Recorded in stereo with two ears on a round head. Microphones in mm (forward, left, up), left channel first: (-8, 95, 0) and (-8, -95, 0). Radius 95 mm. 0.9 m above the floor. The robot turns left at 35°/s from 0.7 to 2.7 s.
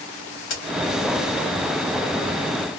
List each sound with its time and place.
0.5 s a crack: 65° left (ahead or behind), 2 m